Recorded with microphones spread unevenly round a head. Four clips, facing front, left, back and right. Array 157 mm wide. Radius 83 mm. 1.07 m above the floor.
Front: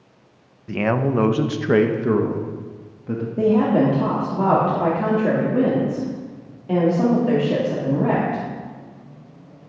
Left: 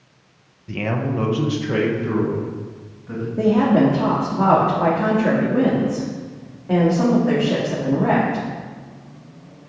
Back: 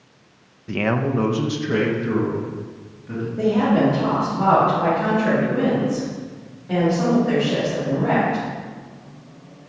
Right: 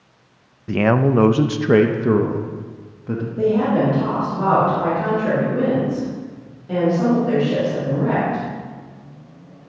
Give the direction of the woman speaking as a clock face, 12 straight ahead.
11 o'clock.